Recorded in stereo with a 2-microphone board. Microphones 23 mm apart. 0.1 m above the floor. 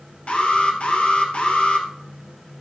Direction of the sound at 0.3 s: 50° left (ahead or behind).